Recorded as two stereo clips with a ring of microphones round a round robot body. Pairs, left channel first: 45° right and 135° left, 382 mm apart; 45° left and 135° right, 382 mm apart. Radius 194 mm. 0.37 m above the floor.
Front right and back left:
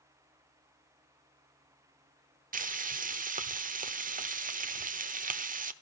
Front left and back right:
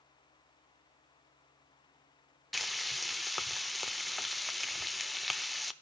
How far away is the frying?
About 0.9 m.